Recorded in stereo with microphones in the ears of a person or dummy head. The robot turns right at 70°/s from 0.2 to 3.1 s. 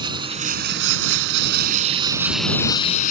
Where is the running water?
155° right; by 3.1 s 50° left.